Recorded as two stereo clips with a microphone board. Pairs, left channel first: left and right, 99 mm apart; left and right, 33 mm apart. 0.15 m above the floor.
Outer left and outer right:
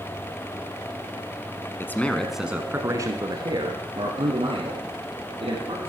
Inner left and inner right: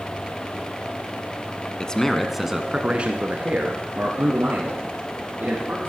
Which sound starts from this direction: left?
A man speaking, at 1.8 s.